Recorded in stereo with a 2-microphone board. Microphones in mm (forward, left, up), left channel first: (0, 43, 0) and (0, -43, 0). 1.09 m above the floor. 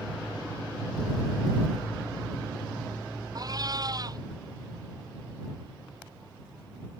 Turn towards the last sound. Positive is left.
turn(degrees=-45)  # may be behind; listen again after turning